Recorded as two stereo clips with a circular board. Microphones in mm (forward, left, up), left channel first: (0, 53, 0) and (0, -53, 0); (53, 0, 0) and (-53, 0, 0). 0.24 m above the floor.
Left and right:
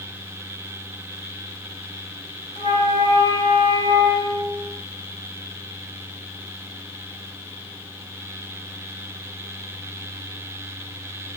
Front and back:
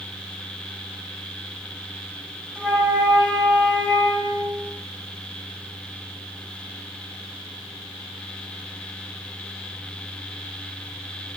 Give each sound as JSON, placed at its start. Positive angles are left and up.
{"t": 2.5, "sound": "a flute", "azimuth_deg": 80, "distance_m": 10.0}